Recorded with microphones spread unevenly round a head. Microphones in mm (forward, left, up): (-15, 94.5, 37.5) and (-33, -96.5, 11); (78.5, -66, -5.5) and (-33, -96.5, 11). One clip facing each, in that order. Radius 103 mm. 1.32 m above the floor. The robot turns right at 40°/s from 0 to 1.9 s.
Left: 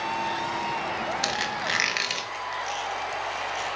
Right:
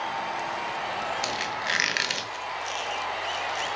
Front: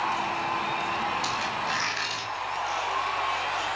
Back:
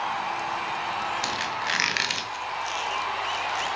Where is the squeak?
155° left, 0.8 m; by 3.8 s straight behind, 0.8 m.